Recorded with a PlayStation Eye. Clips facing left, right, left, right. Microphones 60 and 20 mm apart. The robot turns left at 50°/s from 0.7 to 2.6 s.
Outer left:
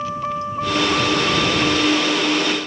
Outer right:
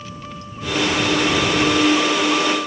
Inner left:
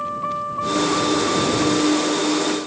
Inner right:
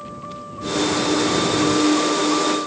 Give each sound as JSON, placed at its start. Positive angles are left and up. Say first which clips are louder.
{"t": 0.0, "sound": "a vehicle", "louder": "outer left 11 dB, inner left 9 dB", "azimuth_deg": 45}